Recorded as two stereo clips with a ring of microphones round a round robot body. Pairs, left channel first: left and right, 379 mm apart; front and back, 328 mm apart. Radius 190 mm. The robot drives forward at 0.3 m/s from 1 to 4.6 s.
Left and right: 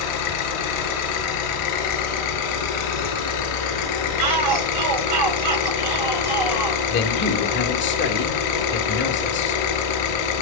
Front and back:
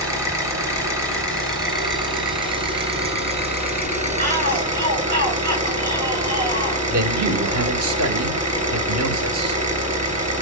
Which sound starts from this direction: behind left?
A man speaking, at 6.9 s.